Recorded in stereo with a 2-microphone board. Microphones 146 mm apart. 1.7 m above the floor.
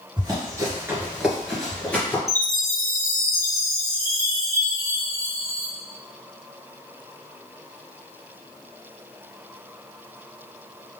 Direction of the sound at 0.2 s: 30° right (ahead or behind).